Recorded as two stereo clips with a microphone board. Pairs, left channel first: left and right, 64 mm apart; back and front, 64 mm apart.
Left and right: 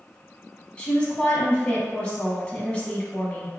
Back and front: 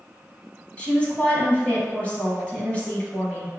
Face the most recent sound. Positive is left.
turn(degrees=140)